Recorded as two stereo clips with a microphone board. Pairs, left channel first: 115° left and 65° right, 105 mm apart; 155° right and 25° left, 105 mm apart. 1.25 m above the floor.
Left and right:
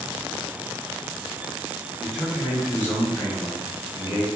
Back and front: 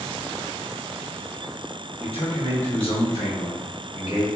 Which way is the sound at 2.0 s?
145° right.